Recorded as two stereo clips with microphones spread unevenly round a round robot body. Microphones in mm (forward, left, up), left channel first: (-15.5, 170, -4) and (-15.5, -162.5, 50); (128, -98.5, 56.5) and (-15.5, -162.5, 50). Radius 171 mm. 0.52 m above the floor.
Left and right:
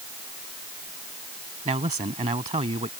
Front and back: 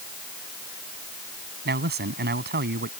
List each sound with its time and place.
1.6 s a man speaking: 165° right